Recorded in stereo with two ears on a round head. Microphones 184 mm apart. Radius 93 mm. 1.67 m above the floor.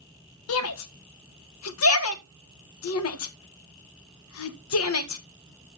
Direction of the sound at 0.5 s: 80° left.